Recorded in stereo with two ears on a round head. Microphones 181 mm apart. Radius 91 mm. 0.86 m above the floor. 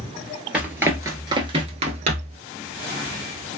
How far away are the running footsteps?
About 1.0 m.